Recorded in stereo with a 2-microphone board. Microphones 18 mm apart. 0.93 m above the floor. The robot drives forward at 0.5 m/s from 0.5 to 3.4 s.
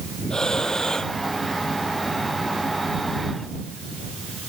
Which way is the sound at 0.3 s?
40° left (ahead or behind).